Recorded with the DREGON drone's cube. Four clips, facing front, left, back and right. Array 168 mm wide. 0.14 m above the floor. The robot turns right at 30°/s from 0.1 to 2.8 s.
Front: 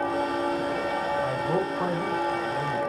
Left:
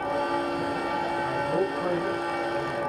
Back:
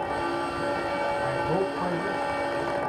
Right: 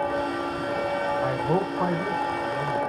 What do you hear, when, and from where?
1.2 s a man speaking: 85° right, 7 m; by 2.8 s 35° right, 7 m